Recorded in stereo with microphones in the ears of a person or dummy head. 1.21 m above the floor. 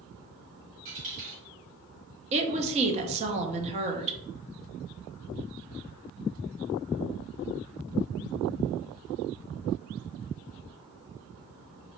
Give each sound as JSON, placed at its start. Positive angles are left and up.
{"t": 0.8, "sound": "a dropped coin", "side_deg": -40, "distance_m": 1.6}
{"t": 2.3, "sound": "a woman speaking", "side_deg": -35, "distance_m": 0.7}